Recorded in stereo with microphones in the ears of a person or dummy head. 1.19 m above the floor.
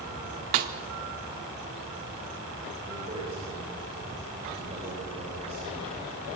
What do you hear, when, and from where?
0.5 s a snare drum: 35° right (ahead or behind), 0.8 m
2.9 s a man speaking: 25° right (ahead or behind), 5.5 m